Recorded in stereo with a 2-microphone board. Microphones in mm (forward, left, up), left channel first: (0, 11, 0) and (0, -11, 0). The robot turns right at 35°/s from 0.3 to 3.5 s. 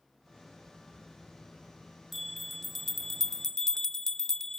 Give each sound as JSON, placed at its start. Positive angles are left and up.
{"t": 2.1, "sound": "a bell", "azimuth_deg": -10}